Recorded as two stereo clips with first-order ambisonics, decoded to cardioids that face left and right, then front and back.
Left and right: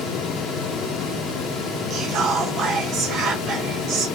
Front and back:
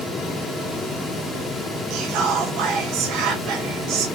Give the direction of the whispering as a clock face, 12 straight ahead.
5 o'clock.